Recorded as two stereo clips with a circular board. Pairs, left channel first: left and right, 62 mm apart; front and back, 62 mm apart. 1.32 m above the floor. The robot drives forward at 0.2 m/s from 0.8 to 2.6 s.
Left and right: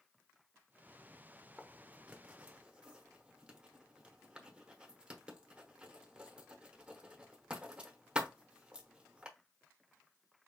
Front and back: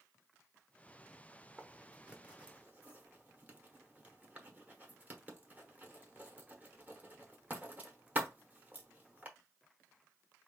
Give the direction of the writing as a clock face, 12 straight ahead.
5 o'clock.